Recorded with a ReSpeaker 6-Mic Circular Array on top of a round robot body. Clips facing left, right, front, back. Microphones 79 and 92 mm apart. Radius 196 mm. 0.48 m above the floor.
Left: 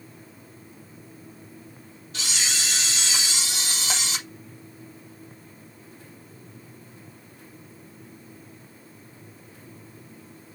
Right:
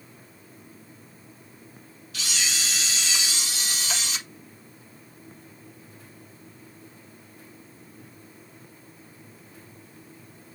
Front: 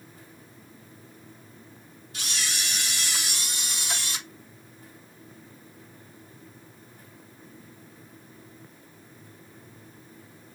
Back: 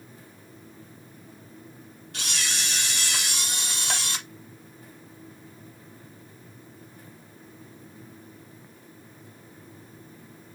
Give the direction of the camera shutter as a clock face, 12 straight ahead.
7 o'clock.